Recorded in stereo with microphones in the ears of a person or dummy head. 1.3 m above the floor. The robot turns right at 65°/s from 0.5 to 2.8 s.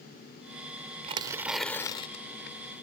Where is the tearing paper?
30° right; by 2.6 s 70° left.